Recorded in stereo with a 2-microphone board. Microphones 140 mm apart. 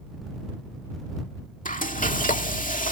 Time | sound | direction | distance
1.6 | frying | 70° left (ahead or behind) | ?